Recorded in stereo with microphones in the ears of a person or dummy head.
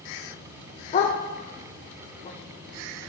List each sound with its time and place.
0.9 s a dog barking: 40° left (ahead or behind), 2.0 m